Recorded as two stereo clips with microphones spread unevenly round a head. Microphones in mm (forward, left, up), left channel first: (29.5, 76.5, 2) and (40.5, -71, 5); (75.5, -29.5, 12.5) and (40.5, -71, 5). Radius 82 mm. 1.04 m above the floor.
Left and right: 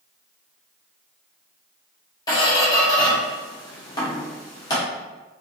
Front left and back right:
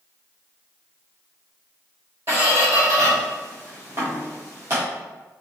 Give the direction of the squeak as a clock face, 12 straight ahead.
7 o'clock.